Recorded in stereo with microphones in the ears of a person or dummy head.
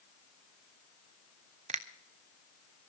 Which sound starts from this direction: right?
A finger snap, at 1.7 s.